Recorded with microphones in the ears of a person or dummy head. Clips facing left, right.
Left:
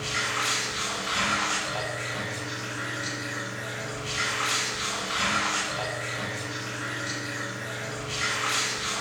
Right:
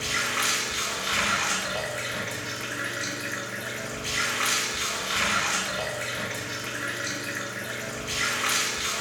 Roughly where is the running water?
Right.